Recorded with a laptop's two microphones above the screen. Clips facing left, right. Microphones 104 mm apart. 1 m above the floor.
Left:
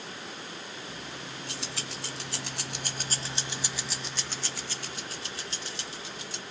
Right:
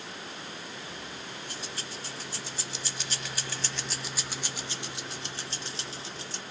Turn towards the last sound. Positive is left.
turn(degrees=-35)  # may be behind; listen again after turning